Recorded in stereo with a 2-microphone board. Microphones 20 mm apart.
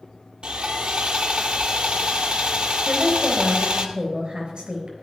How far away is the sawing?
About 1.1 m.